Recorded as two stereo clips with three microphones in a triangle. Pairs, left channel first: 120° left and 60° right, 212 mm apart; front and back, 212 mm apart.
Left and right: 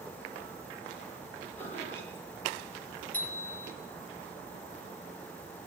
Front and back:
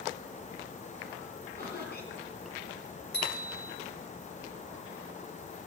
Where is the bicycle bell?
40° left, 4.5 m.